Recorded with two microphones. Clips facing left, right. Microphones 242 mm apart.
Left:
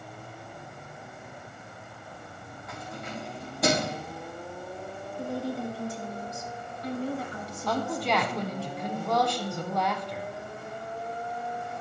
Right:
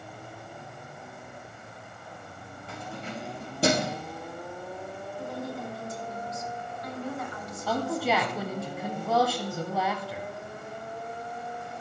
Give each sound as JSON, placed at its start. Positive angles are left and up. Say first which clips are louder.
{"t": 2.7, "sound": "keys jangling", "louder": "right 1 dB", "side_deg": -30, "distance_m": 3.0}
{"t": 5.2, "sound": "a woman speaking", "louder": "left 5 dB", "side_deg": 30, "distance_m": 1.4}
{"t": 7.7, "sound": "a woman speaking", "louder": "right 1 dB", "side_deg": -5, "distance_m": 1.0}